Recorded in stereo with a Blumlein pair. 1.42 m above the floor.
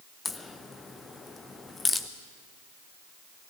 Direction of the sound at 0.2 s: 10° left.